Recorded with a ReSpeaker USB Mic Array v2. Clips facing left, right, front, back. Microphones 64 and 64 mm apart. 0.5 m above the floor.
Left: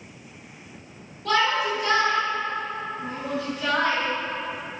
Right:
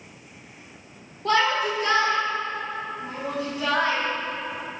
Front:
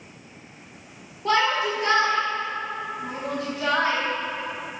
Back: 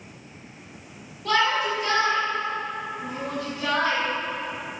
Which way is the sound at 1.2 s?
50° right.